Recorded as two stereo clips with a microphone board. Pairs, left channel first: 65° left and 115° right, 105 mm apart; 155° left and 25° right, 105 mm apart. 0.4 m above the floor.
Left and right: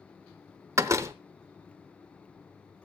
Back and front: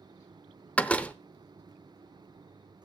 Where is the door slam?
135° right, 0.7 m.